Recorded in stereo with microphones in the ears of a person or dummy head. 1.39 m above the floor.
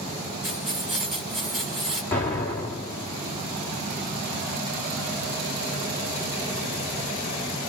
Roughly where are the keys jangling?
Centre.